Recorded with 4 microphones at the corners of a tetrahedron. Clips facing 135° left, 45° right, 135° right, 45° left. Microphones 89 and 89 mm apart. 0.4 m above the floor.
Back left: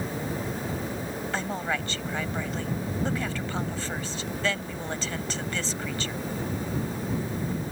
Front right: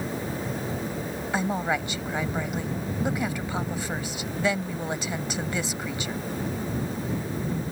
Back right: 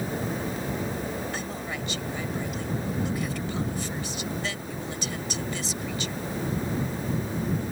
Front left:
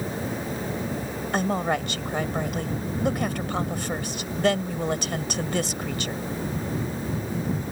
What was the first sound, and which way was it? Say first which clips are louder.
A woman speaking: front right 5 dB, front left 9 dB; 30° left.